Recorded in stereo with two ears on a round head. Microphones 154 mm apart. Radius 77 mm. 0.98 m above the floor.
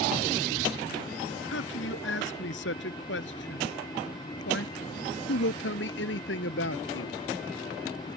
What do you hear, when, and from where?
1.5 s a man speaking: 75° left (ahead or behind); by 7.2 s 70° left (ahead or behind)